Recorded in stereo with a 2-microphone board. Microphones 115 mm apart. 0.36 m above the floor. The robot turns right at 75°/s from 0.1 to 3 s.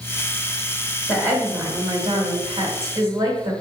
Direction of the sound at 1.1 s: 155° left.